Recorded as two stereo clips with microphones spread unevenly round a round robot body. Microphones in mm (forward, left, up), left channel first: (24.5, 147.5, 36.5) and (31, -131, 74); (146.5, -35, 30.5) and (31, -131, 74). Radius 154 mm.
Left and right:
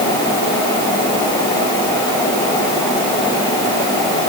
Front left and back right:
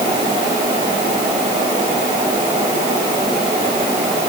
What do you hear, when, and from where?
Only background noise.